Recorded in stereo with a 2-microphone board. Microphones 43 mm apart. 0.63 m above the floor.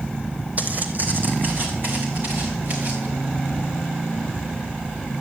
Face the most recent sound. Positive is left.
turn(degrees=-50)  # may be behind; listen again after turning